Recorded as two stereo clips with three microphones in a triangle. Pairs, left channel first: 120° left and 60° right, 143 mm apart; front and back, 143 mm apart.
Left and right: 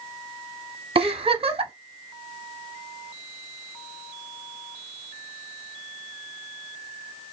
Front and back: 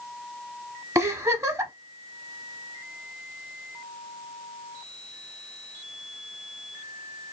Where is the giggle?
110° right, 0.8 m.